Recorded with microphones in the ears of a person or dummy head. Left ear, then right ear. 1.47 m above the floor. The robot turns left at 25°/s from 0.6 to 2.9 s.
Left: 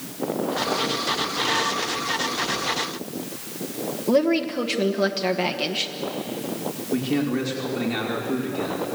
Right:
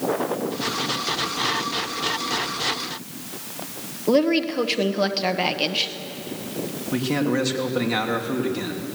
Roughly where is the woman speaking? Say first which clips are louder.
Right 1 dB; centre.